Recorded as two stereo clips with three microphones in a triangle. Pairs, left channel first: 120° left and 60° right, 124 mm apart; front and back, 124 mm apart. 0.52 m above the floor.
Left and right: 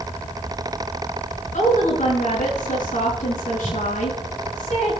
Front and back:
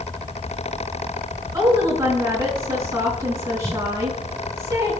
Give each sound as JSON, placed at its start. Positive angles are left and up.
{"t": 1.5, "sound": "a woman speaking", "azimuth_deg": 115, "distance_m": 5.0}